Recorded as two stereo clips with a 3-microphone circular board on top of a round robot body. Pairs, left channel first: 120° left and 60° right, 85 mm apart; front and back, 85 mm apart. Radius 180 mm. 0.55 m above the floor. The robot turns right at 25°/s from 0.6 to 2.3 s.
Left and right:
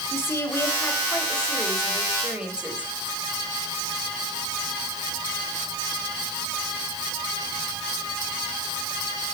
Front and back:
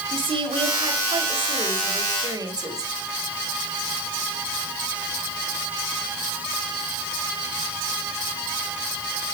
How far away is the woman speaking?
About 4.5 m.